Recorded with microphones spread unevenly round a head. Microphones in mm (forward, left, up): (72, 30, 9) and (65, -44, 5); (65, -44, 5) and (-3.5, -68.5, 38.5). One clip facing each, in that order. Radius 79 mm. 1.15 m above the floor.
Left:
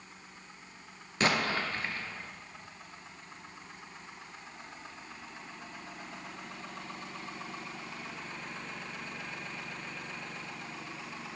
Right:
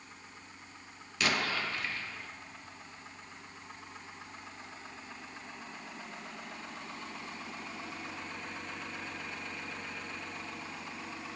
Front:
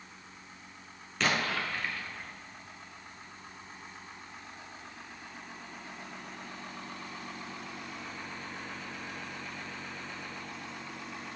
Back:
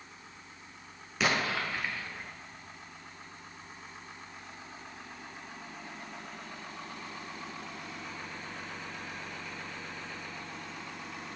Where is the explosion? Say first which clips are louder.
Left 3 dB, back 1 dB; 75° left, 0.7 m.